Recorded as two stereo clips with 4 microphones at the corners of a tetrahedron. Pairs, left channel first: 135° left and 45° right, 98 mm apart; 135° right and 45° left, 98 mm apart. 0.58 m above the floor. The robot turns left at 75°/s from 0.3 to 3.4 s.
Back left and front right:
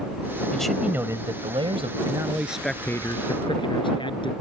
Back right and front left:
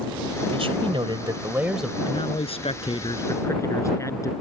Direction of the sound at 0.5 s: 55° left.